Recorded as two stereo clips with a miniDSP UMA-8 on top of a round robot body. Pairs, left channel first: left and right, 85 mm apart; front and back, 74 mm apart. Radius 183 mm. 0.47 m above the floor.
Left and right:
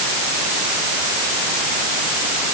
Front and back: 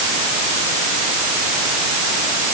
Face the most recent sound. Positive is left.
No sound to turn to.